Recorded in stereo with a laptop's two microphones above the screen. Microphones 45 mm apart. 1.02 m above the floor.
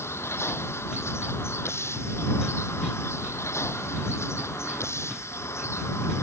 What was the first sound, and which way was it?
A vehicle, 70° left (ahead or behind).